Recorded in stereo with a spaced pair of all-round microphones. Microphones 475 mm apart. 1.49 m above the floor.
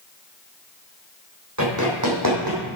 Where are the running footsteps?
35° right (ahead or behind), 3.5 m; by 2.6 s 45° right (ahead or behind), 3.5 m.